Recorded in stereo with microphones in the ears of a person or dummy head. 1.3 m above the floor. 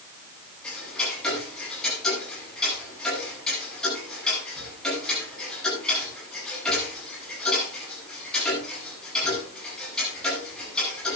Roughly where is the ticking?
Centre.